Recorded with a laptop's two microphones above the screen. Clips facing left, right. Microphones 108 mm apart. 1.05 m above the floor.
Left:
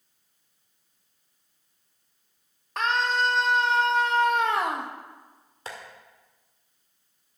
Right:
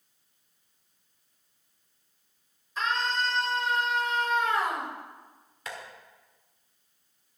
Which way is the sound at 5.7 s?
30° left (ahead or behind).